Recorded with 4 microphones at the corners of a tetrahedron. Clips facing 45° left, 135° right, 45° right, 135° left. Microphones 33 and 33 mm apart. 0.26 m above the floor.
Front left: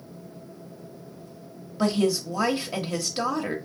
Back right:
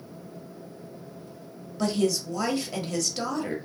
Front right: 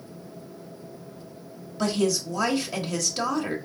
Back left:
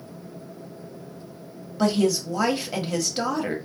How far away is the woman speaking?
About 1.0 m.